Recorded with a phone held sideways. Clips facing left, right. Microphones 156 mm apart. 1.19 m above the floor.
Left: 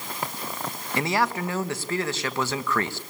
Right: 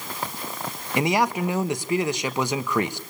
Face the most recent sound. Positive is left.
turn(degrees=-15)  # may be behind; listen again after turning